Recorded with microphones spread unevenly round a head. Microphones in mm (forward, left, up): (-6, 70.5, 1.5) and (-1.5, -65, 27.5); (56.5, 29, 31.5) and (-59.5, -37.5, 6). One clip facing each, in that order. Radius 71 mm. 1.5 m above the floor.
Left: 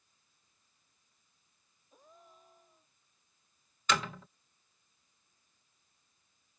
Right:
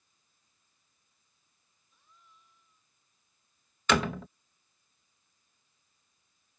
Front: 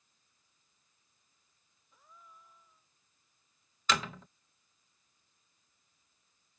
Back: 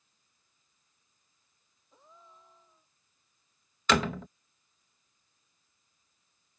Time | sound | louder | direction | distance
1.9 | a gasp | left 7 dB, back 2 dB | 145° left | ?
3.9 | a door slam | right 6 dB, back 7 dB | 110° right | ?